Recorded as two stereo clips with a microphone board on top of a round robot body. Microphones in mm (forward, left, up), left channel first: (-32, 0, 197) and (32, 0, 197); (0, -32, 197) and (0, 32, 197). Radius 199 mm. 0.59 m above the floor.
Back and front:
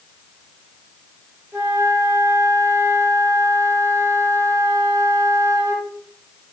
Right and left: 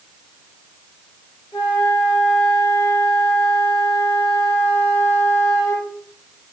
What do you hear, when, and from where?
1.5 s a flute: 70° right, 0.9 m